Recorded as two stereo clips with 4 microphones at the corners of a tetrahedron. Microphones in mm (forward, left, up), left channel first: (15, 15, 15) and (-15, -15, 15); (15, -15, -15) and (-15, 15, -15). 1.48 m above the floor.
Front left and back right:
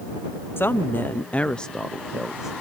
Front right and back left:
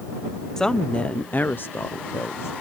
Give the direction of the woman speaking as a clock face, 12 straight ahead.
11 o'clock.